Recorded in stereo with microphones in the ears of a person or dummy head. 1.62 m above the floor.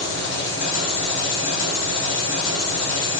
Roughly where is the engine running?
Left.